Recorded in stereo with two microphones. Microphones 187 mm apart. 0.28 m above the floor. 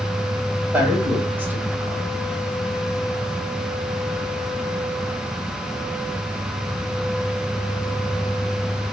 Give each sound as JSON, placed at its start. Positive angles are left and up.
{"t": 0.7, "sound": "a man speaking", "side_deg": -10, "distance_m": 1.7}